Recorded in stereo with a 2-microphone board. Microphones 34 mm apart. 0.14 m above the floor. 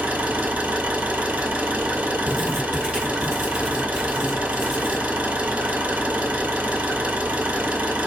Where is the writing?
10° right (ahead or behind), 1.5 m.